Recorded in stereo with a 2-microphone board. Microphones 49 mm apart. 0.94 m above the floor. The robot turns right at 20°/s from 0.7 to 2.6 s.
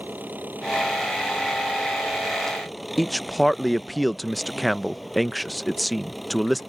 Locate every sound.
0.0 s an engine running: 40° right; by 6.7 s straight ahead
3.0 s a man speaking: centre (ahead or behind)